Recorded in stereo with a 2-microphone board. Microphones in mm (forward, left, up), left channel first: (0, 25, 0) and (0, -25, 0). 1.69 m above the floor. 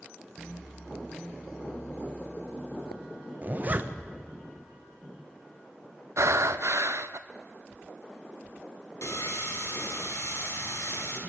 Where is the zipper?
35° right (ahead or behind), 1.2 m.